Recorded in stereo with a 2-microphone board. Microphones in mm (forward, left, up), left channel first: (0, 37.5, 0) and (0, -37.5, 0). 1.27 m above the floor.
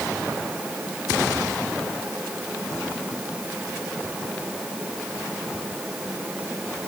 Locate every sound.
Only background noise.